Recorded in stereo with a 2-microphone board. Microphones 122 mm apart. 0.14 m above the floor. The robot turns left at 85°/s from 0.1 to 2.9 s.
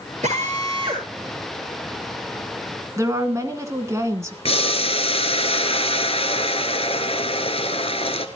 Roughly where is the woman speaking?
Right.